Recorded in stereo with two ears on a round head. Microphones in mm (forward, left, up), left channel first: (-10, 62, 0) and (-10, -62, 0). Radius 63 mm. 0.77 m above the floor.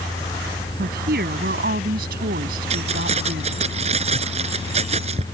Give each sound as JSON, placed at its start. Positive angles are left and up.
{"t": 0.8, "sound": "a woman speaking", "side_deg": -70}
{"t": 2.7, "sound": "keys jangling", "side_deg": -50}